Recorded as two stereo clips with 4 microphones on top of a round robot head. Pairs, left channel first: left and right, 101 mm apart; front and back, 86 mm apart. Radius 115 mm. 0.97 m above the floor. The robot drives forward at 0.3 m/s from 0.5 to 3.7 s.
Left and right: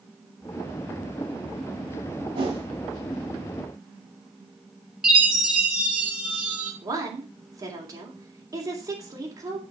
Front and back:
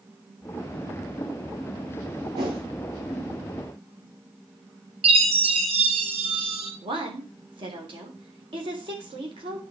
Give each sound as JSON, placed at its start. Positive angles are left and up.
{"t": 2.4, "sound": "a whoosh", "azimuth_deg": -130, "distance_m": 3.0}
{"t": 5.0, "sound": "a chime", "azimuth_deg": -175, "distance_m": 3.0}
{"t": 6.8, "sound": "a woman speaking", "azimuth_deg": -150, "distance_m": 3.5}